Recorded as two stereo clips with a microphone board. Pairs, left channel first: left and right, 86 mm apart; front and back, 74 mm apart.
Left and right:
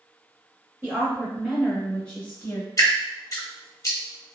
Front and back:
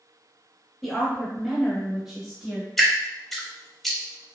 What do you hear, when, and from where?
0.8 s a woman speaking: 90° right, 1.0 m; by 2.7 s 105° left, 1.1 m
2.8 s dripping: 85° left, 0.7 m